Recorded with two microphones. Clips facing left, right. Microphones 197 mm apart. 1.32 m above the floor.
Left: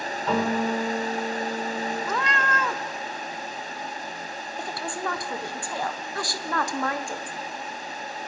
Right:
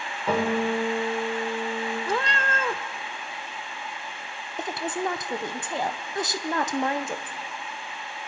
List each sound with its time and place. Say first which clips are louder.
0.3 s a guitar: right 1 dB; 10° right (ahead or behind), 6 m
2.1 s a cat meowing: even; 30° right (ahead or behind), 0.5 m
4.6 s a woman speaking: right 4 dB; 20° right (ahead or behind), 0.8 m